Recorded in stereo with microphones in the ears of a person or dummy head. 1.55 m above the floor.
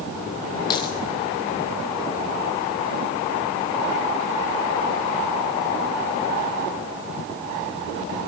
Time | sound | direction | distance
0.7 | a dropped coin | 25° left (ahead or behind) | 2 m